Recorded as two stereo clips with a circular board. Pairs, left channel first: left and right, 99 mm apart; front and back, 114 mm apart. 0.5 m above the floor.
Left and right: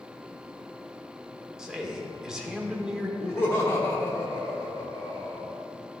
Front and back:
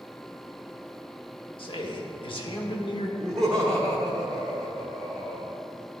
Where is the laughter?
75° left, 1.1 m.